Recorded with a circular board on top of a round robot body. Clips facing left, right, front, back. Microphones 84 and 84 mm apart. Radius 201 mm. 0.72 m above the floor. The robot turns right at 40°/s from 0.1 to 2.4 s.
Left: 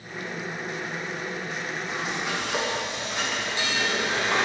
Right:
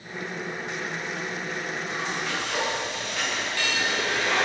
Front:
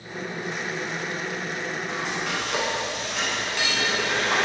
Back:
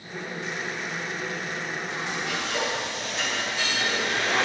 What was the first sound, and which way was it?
Frying, straight ahead.